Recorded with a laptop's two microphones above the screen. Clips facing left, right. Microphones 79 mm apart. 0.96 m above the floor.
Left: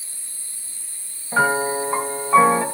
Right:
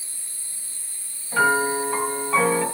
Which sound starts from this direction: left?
A piano, at 1.3 s.